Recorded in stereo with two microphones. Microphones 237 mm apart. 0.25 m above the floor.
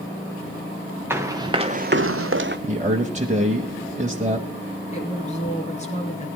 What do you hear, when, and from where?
1.1 s running footsteps: 10° right (ahead or behind), 1.7 m; by 2.6 s 45° right (ahead or behind), 0.9 m
2.7 s a man speaking: 30° right (ahead or behind), 1.1 m
4.9 s a woman speaking: 30° left (ahead or behind), 3 m